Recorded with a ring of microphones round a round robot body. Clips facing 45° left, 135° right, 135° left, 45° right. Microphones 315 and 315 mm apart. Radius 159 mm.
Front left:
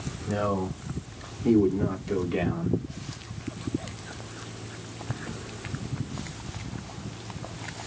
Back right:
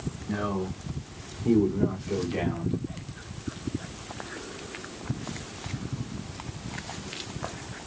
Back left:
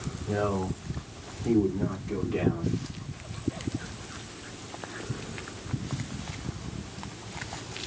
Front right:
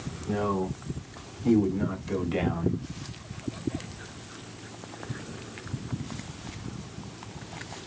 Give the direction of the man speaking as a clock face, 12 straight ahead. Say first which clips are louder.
Front left 2 dB, front right 1 dB; 12 o'clock.